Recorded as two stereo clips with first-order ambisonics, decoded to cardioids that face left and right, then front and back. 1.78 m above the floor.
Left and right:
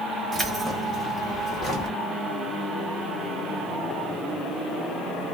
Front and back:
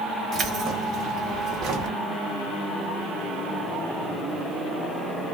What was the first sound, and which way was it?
Keys jangling, 155° right.